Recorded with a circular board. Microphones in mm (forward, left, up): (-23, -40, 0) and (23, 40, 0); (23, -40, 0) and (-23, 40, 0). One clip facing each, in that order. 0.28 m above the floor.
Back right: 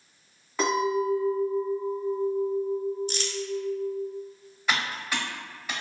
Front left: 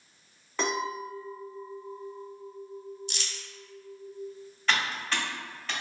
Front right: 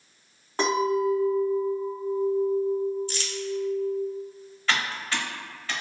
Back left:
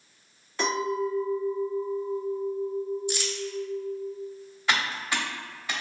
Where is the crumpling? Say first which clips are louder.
Back right 10 dB, back left 4 dB; 165° right, 0.6 m.